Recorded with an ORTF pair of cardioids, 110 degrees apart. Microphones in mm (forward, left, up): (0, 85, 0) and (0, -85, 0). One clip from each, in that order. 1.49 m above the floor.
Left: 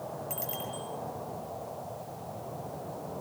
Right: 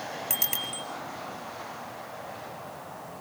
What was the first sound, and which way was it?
A bicycle bell, 70° right.